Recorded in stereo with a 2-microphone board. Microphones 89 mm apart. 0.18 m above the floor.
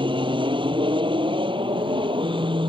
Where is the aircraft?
75° right (ahead or behind).